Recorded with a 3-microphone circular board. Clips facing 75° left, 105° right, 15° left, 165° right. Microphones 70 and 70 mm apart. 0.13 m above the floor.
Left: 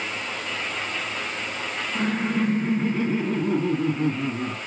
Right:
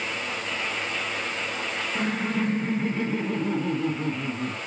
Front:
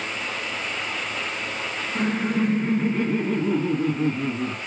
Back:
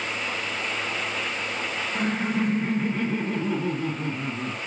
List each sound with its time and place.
1.9 s laughter: 100° left, 1.1 m